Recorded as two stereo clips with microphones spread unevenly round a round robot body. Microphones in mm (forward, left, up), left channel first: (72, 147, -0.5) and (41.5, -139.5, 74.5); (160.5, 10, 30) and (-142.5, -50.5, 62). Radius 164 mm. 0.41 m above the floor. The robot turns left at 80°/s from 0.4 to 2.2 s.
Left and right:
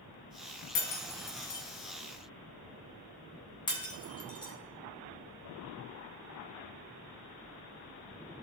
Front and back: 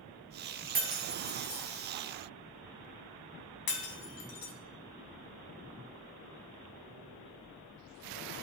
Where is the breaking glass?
130° left, 1.7 m; by 4.5 s 10° left, 1.7 m.